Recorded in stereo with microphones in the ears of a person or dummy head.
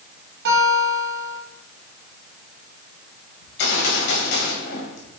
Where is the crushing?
I don't hear crushing.